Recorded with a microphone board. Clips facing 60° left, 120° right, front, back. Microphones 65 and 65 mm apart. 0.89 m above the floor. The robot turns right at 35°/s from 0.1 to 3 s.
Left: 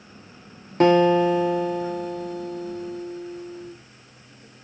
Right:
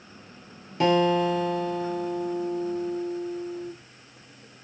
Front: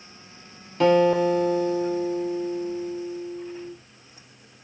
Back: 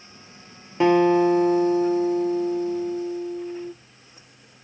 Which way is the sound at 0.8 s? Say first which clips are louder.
Left 5 dB, back 1 dB; 110° left.